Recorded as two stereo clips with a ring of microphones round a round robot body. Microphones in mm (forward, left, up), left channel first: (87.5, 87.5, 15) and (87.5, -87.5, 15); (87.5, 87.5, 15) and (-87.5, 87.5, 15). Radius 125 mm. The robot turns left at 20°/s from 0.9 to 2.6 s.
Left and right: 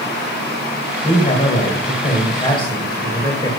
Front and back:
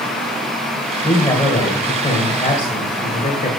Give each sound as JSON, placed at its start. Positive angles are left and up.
{"t": 1.0, "sound": "a man speaking", "azimuth_deg": 65, "distance_m": 2.5}